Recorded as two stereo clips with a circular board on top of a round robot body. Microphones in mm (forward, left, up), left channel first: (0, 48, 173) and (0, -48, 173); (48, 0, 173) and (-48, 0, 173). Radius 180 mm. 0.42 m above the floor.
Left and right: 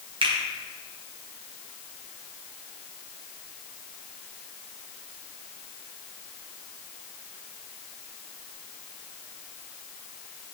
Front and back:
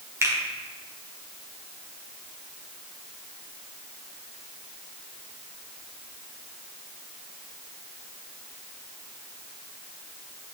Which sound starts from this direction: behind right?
A finger snap, at 0.2 s.